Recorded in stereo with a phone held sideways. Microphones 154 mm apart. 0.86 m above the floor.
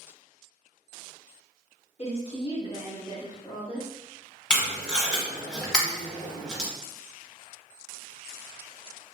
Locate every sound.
2.0 s a woman speaking: 45° left (ahead or behind), 1.0 m; by 3.9 s 5° left (ahead or behind), 1.1 m
4.5 s tape being pulled: 5° left (ahead or behind), 0.9 m